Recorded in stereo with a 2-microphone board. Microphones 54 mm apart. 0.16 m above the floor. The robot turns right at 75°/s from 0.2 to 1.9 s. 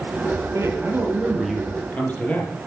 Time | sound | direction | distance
0.5 | a man speaking | 70° right | 4 m